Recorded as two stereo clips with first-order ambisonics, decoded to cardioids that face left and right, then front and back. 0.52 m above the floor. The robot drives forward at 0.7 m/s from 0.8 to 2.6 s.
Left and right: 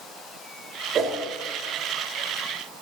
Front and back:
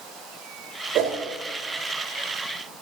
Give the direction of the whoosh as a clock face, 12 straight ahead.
5 o'clock.